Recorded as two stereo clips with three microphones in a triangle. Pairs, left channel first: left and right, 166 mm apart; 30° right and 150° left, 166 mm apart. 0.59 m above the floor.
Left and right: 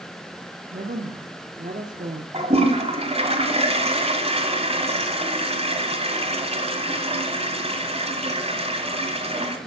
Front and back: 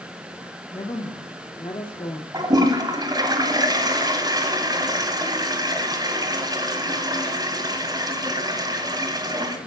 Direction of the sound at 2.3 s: 140° right.